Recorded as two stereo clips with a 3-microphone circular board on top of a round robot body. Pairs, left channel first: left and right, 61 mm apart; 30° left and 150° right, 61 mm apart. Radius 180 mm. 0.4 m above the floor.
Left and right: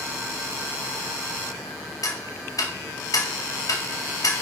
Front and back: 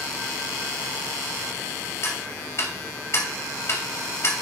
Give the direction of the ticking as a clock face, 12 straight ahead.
10 o'clock.